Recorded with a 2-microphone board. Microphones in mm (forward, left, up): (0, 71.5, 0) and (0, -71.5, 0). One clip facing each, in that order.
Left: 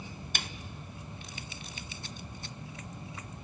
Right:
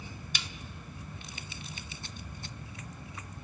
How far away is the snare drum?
About 0.6 m.